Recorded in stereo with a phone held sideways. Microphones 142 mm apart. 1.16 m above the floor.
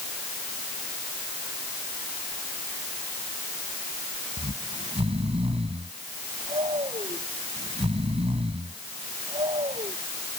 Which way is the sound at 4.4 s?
40° right (ahead or behind).